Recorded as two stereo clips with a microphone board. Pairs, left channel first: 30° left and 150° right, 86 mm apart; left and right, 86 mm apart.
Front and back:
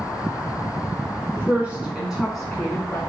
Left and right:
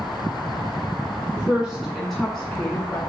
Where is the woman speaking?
145° right, 1.4 m; by 3.0 s 65° left, 1.4 m.